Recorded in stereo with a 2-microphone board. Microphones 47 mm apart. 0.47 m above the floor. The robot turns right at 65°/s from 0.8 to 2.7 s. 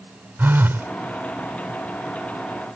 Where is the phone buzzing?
50° right (ahead or behind).